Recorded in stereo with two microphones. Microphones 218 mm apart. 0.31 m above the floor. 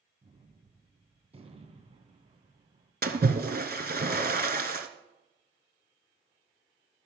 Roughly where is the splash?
Right.